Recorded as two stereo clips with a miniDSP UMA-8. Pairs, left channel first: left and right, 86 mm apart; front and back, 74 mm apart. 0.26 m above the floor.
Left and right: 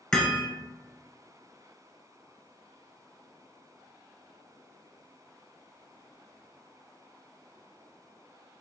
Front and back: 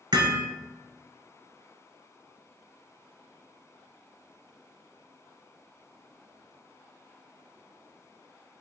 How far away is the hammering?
About 0.8 m.